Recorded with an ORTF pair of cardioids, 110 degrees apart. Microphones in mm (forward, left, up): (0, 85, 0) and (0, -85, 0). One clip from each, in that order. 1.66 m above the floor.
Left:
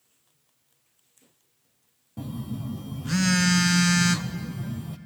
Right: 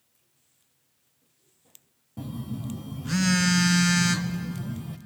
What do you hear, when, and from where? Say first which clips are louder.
2.2 s a phone buzzing: left 1 dB; 5° left, 0.7 m